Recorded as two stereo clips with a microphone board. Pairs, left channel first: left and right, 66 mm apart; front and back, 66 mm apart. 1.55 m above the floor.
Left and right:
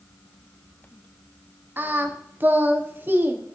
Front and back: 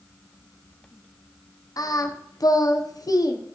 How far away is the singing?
About 0.8 m.